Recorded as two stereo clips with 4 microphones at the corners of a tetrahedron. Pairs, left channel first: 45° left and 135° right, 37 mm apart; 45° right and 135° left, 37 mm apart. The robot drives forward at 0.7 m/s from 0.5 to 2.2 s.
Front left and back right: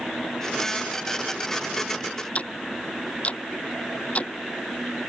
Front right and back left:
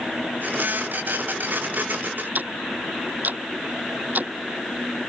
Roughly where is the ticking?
Left.